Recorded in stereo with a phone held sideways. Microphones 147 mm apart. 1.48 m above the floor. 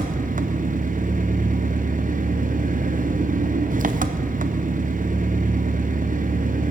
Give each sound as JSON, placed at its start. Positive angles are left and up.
{"t": 0.0, "sound": "an engine running", "side_deg": -65, "distance_m": 0.8}